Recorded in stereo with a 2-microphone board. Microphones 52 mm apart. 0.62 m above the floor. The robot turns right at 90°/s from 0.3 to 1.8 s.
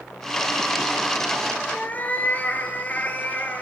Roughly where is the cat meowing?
Left.